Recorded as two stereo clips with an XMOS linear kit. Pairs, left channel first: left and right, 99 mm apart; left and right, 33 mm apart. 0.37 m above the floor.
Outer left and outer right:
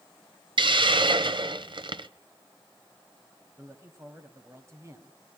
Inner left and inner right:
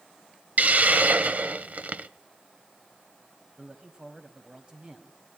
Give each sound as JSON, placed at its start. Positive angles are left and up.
{"t": 0.6, "sound": "a hiss", "side_deg": -55, "distance_m": 0.7}
{"t": 3.6, "sound": "a woman speaking", "side_deg": -25, "distance_m": 2.0}